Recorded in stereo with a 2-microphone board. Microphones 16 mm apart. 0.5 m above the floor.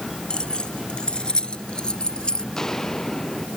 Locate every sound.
0.3 s keys jangling: 80° left; by 2.4 s 75° left (ahead or behind)
2.5 s footsteps: 30° left (ahead or behind)